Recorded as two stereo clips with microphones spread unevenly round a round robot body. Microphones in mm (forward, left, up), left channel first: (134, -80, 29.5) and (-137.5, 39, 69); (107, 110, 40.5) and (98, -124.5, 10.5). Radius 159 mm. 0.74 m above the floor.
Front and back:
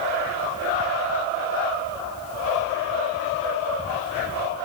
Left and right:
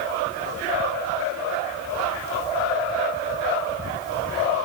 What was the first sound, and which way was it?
Only background noise.